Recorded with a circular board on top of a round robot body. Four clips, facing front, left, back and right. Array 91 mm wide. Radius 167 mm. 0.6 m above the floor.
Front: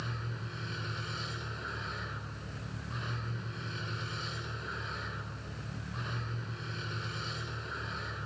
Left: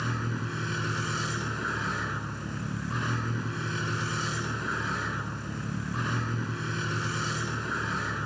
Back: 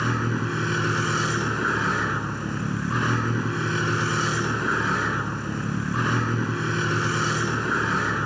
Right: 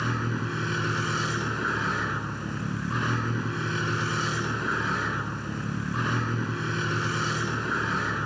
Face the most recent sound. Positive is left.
turn(degrees=-170)